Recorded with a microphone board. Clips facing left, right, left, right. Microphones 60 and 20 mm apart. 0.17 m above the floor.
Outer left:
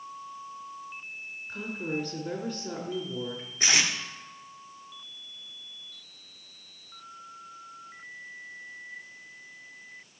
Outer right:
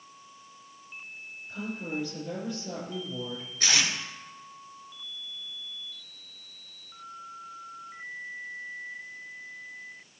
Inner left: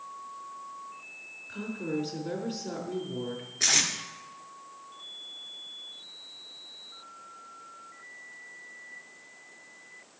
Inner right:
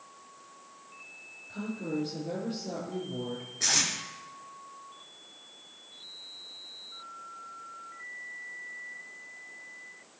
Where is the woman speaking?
55° left (ahead or behind), 4 m.